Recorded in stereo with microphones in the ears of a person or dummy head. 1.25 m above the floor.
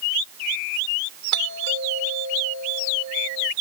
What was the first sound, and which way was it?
A doorbell, 65° right (ahead or behind).